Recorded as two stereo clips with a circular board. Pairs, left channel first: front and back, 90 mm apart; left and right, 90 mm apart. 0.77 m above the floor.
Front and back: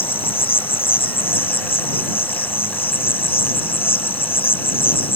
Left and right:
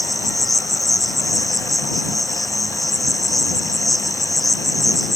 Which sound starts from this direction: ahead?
An insect, at 0.0 s.